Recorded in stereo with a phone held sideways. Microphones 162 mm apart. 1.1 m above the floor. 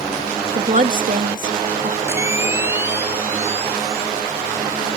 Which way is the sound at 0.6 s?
55° right (ahead or behind).